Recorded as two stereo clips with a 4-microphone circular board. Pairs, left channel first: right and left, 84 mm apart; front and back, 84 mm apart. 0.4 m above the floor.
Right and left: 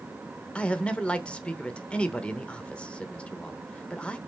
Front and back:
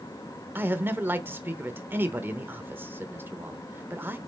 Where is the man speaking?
150° right, 0.9 m.